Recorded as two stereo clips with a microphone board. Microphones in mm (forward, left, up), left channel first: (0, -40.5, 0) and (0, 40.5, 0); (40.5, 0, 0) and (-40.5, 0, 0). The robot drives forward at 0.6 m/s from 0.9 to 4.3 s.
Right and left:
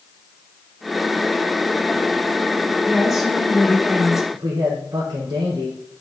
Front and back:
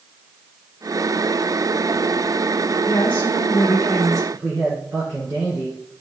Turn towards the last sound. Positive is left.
turn(degrees=115)